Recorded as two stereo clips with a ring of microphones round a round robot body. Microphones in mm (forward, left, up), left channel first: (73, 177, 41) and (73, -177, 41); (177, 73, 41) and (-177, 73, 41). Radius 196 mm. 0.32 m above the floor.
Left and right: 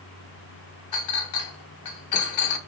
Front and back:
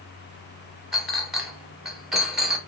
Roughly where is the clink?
Left.